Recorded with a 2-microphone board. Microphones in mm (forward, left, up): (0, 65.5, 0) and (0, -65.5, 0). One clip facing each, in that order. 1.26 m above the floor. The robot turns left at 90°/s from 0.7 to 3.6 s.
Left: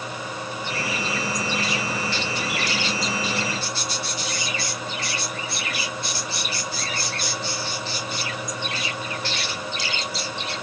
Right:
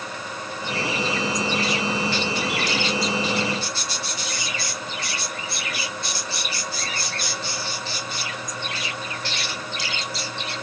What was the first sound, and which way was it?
Only background noise.